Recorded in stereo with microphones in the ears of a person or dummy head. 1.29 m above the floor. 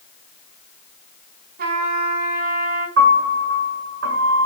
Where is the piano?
70° right (ahead or behind), 7.5 m.